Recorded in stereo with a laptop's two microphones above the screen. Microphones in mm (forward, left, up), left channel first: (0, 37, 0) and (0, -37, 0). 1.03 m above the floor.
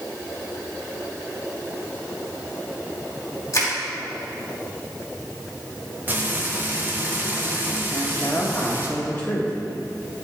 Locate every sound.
3.5 s crushing: 45° left (ahead or behind), 1.9 m
6.1 s frying: 25° right (ahead or behind), 0.8 m
7.9 s a woman speaking: 25° left (ahead or behind), 1.4 m